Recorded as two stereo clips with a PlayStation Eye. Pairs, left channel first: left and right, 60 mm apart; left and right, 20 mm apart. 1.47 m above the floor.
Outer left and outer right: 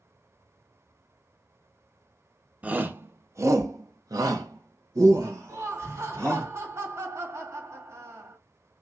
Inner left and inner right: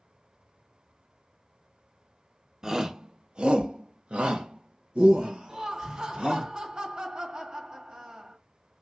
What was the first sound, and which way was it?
A shout, 25° right (ahead or behind).